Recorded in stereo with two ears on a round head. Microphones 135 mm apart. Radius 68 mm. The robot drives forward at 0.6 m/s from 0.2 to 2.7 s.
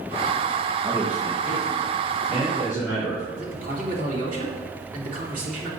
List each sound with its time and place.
0.8 s a man speaking: 20° right (ahead or behind), 1.5 m; by 3.2 s 10° right (ahead or behind), 2.5 m
3.4 s a man speaking: 60° right (ahead or behind), 3 m